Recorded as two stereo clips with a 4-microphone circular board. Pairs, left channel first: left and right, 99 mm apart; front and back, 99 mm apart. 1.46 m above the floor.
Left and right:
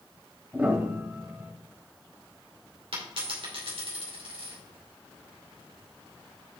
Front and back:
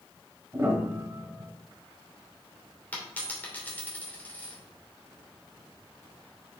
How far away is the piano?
About 1.4 m.